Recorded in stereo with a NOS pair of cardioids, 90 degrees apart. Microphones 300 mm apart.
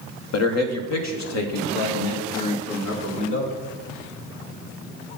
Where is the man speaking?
55° left, 1.3 m; by 3.5 s 70° left, 3.5 m.